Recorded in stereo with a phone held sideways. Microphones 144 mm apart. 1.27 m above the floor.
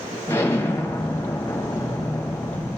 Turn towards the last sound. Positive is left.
turn(degrees=20)  # may be behind; listen again after turning